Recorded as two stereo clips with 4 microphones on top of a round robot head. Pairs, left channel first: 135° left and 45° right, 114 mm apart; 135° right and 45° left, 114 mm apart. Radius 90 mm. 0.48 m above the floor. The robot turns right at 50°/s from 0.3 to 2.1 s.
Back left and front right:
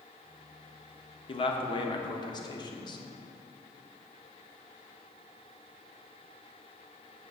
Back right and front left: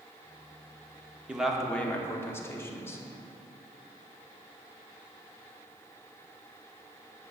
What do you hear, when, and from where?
1.3 s a man speaking: 125° left, 1.0 m; by 3.0 s 165° left, 1.0 m